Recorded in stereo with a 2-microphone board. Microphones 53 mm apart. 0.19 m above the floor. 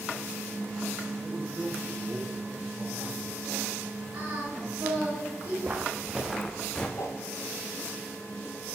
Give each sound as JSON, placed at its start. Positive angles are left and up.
{"t": 1.2, "sound": "a man speaking", "side_deg": -20, "distance_m": 1.6}
{"t": 4.1, "sound": "singing", "side_deg": -40, "distance_m": 3.5}
{"t": 5.6, "sound": "footsteps", "side_deg": -35, "distance_m": 1.0}
{"t": 7.0, "sound": "a whoosh", "side_deg": 75, "distance_m": 1.2}